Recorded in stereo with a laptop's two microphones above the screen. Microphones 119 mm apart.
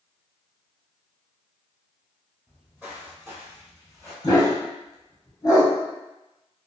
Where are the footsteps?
10° right (ahead or behind), 1.7 m; by 4.1 s 30° right (ahead or behind), 1.3 m.